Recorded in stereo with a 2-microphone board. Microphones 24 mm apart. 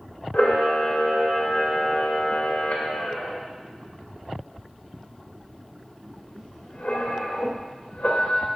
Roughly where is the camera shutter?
Left.